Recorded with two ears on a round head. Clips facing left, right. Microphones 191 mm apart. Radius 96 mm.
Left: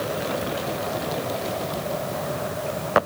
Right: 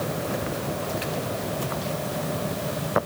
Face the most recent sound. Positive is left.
No sound to turn to.